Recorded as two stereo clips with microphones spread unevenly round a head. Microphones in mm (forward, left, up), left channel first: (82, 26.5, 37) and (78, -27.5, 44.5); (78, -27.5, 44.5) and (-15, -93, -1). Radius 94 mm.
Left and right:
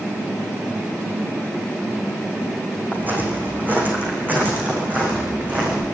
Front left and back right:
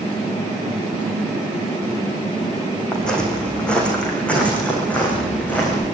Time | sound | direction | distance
2.9 | footsteps | 45° right | 6.5 m